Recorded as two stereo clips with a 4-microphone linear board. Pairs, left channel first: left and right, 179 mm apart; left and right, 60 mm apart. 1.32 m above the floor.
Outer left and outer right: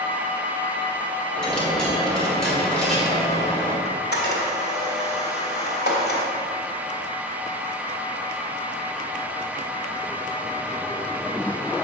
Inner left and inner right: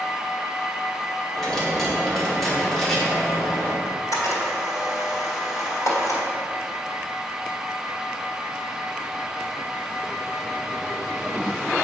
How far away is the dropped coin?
About 1.5 m.